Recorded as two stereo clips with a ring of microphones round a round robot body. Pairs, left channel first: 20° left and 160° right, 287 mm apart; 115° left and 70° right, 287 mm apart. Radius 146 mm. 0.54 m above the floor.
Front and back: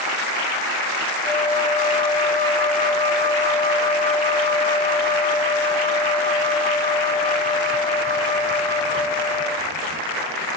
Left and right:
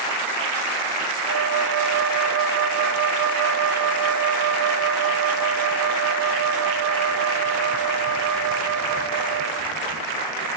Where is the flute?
65° right, 1.0 m.